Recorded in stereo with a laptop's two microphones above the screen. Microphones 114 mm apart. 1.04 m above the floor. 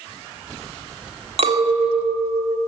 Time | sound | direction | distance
1.4 | a clink | 65° right (ahead or behind) | 1.3 m